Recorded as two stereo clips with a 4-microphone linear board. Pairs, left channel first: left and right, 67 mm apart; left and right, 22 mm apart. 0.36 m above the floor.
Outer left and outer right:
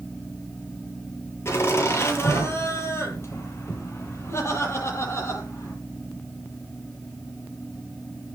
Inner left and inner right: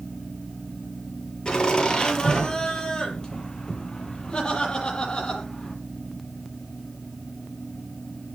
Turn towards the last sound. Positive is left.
turn(degrees=40)  # may be behind; listen again after turning